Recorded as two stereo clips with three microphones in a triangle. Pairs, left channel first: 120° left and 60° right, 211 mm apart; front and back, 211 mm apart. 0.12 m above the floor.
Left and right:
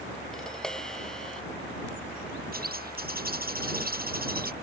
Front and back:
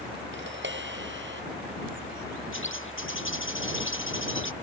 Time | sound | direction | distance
0.3 | tapping | 150° right | ?
2.5 | a bird | 15° right | ?